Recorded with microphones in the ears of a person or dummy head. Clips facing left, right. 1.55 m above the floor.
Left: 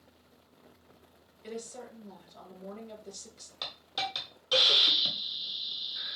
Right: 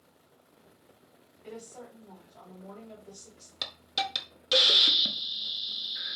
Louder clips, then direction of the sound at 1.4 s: Left 3 dB; 50° left (ahead or behind).